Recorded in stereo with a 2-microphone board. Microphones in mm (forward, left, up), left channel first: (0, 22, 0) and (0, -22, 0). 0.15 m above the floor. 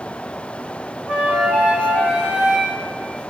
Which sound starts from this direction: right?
A flute, at 1.1 s.